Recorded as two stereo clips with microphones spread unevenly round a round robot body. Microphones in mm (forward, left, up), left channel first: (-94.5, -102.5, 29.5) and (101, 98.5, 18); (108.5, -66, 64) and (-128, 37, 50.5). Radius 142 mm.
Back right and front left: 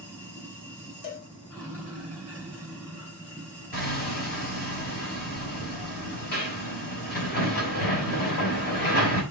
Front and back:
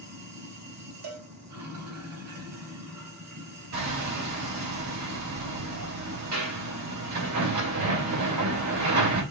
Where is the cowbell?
165° left, 3 m.